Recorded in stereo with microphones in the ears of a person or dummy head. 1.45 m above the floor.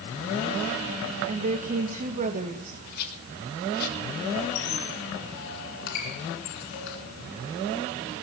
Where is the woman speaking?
45° right (ahead or behind), 1.4 m.